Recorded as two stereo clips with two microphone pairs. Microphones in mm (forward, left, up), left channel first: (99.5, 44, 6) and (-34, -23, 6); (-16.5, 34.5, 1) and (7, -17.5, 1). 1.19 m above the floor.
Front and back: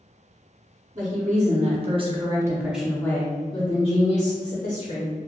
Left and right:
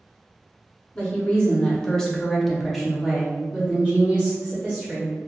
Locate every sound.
0.9 s a woman speaking: straight behind, 1.1 m; by 5.1 s straight ahead, 1.3 m